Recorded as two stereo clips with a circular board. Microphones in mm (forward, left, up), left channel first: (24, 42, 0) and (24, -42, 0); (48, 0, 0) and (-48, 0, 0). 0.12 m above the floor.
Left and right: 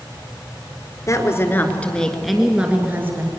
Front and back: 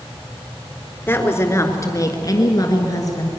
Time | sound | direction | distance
1.1 | a woman speaking | 60° left | 2 m